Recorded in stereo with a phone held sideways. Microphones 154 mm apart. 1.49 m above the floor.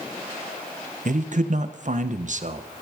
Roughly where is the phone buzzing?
I don't hear a phone buzzing.